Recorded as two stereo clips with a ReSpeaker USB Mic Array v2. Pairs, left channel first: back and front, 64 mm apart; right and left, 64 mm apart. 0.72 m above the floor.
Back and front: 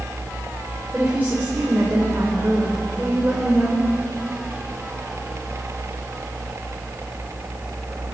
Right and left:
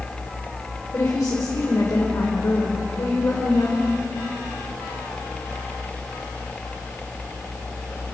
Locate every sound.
0.9 s a woman speaking: 60° right, 3 m